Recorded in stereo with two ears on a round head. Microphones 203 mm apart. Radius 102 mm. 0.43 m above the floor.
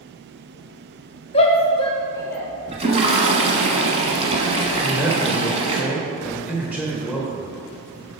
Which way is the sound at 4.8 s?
5° right (ahead or behind).